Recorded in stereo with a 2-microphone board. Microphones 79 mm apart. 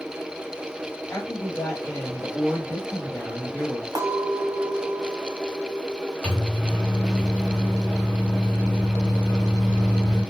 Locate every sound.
1.1 s a woman speaking: 30° left (ahead or behind), 1.7 m
4.0 s a clink: 55° right (ahead or behind), 1.0 m
6.2 s a microwave: 15° left (ahead or behind), 2.5 m